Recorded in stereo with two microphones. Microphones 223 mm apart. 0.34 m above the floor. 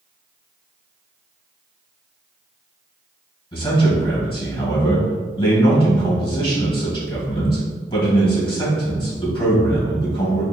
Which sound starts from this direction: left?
A man speaking, at 3.5 s.